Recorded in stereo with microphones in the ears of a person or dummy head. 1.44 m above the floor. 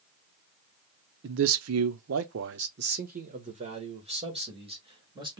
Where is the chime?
I don't hear a chime.